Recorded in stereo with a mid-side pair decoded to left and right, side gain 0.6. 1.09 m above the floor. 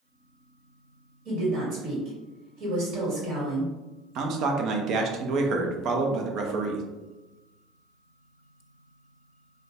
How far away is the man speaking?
About 0.7 m.